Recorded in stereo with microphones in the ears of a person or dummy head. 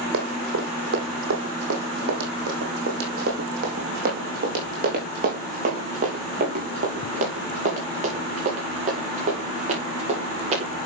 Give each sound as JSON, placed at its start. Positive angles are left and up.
{"t": 0.1, "sound": "running footsteps", "side_deg": -70, "distance_m": 3.0}